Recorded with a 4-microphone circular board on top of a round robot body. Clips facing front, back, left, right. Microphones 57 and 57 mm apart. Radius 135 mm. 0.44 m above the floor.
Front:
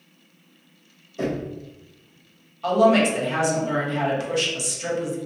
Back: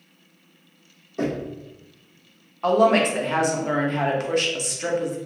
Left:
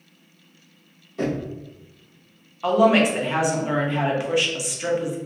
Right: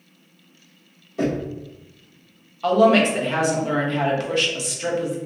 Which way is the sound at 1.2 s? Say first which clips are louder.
Back 1 dB, right 2 dB; 175° right.